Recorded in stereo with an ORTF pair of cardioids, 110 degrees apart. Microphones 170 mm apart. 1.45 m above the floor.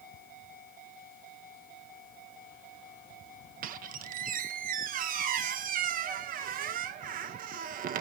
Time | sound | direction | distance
3.6 | a squeak | 55° right | 1.1 m